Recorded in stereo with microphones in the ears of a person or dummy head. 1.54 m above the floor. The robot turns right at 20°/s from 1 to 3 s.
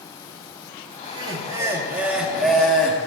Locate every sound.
1.0 s laughter: 30° right, 3 m; by 3.0 s 10° left, 3 m